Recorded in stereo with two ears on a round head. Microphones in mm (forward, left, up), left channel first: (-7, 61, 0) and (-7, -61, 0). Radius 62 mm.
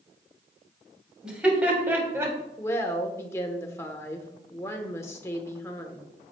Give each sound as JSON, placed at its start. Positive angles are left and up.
{"t": 1.2, "sound": "laughter", "side_deg": -5, "distance_m": 2.5}
{"t": 2.6, "sound": "a woman speaking", "side_deg": 20, "distance_m": 1.0}